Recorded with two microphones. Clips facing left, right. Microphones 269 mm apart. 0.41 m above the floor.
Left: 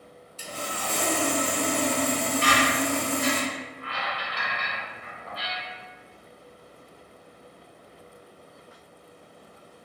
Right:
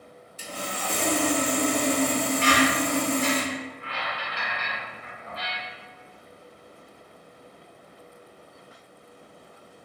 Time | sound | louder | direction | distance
0.4 | sawing | right 1 dB | 15° right (ahead or behind) | 0.6 m
2.4 | a squeak | right 4 dB | 55° left (ahead or behind) | 1.2 m